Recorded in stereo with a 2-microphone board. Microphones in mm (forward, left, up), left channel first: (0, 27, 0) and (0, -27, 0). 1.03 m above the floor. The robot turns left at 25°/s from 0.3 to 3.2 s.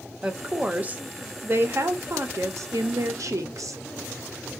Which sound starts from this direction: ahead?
A woman speaking, at 0.2 s.